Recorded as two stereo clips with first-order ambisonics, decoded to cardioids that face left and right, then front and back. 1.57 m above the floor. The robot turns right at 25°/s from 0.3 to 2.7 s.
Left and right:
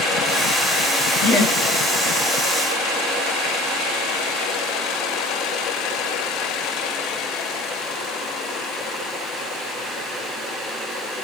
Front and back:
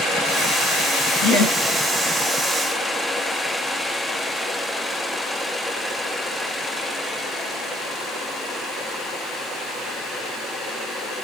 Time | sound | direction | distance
1.2 | laughter | 55° left | 2.5 m